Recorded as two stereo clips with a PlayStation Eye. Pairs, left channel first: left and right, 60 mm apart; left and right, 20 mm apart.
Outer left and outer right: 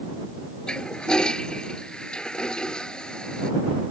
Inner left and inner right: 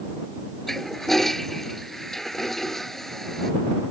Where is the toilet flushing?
15° left (ahead or behind).